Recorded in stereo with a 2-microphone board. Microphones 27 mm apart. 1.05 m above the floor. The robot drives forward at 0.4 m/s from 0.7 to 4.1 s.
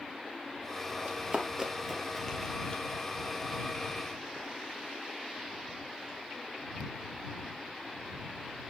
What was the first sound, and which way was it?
Running footsteps, 40° right (ahead or behind).